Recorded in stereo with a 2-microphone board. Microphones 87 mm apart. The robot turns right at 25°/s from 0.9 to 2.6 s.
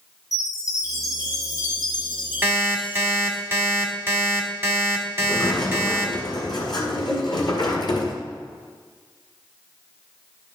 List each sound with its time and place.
0.3 s a chime: 45° left, 1.7 m; by 3.4 s 85° left, 1.7 m
2.4 s an alarm clock: 20° right (ahead or behind), 1.4 m; by 6.1 s 25° right (ahead or behind), 1.4 m
5.2 s a sliding door: 55° left (ahead or behind), 1.7 m